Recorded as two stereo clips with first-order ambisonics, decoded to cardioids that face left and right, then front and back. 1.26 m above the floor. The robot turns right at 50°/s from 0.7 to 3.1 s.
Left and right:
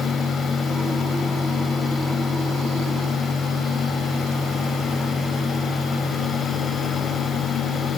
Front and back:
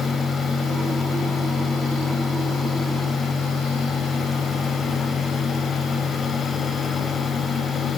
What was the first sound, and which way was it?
Only background noise.